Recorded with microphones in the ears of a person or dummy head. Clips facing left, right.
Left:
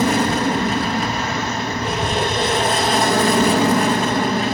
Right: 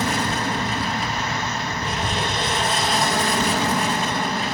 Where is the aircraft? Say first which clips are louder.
Left 7 dB; 55° left (ahead or behind); by 4.5 s 50° left (ahead or behind).